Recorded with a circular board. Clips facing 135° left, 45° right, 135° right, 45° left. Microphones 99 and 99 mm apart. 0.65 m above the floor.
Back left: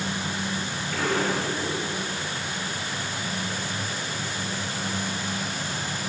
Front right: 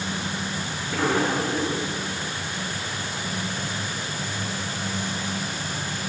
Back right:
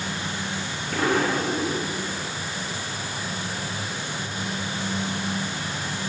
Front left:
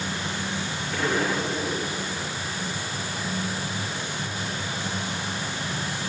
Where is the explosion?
110° right, 6.5 m.